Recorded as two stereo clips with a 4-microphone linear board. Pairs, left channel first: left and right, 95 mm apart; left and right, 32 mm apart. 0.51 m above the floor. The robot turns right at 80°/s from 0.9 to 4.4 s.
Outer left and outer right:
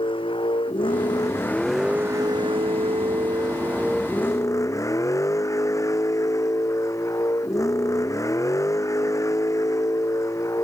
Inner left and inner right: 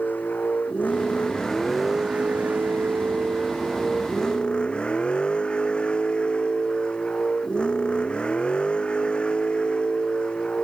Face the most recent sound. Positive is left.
turn(degrees=35)